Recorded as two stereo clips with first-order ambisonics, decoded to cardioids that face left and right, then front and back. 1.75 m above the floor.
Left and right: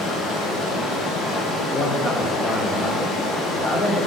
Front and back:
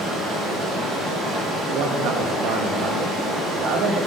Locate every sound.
0.0 s running water: 125° left, 1.4 m
1.7 s a man speaking: 160° left, 0.9 m